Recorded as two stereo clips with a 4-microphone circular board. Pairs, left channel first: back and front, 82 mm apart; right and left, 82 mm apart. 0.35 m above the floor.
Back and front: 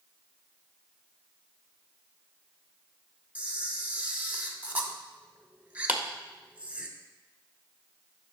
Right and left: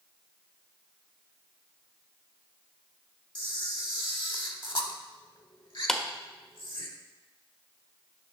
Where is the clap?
10° right, 0.6 m.